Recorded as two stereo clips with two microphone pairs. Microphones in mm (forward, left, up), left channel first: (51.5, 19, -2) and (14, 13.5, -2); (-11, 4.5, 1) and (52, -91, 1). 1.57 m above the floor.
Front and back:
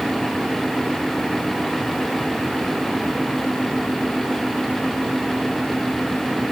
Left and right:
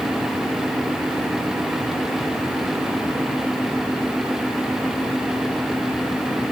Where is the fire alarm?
No fire alarm in this recording.